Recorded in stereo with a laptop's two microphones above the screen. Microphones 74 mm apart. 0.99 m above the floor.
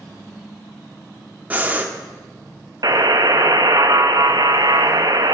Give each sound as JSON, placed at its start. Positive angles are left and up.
{"t": 1.5, "sound": "breathing", "side_deg": -20, "distance_m": 1.3}
{"t": 2.8, "sound": "a buzzer", "side_deg": -60, "distance_m": 0.8}